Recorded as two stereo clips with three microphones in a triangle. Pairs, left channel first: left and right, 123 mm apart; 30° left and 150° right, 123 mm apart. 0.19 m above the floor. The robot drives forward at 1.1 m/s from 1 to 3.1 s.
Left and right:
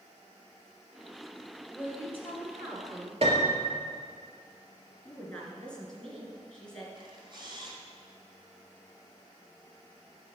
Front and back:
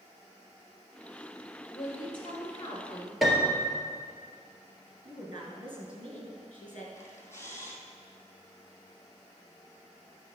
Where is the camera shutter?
40° right, 1.5 m.